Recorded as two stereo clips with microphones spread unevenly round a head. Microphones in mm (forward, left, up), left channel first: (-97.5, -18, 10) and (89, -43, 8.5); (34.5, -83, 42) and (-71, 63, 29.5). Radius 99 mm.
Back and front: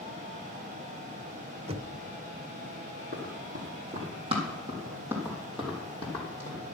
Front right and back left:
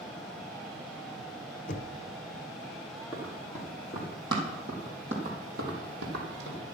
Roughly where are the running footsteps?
Ahead left.